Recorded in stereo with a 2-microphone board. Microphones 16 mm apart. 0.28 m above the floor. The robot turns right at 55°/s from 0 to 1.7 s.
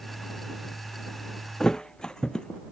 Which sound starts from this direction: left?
A thud, at 1.6 s.